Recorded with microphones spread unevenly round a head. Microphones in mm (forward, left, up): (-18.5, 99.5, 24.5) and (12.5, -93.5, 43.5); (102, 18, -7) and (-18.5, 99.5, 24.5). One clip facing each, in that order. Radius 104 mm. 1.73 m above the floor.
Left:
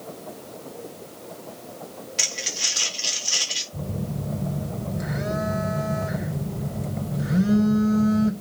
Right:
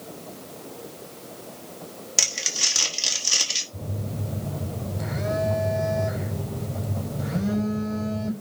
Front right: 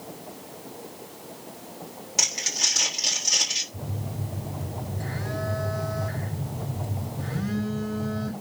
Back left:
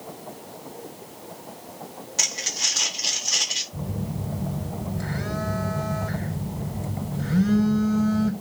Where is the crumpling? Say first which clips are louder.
Left 1 dB, even; 110° right, 4.5 m.